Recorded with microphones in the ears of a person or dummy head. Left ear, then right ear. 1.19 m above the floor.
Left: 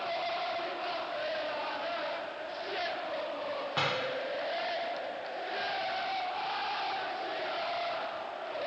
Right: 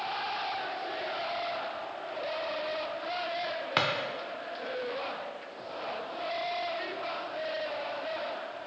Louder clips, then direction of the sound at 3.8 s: Right 3 dB; 45° right (ahead or behind).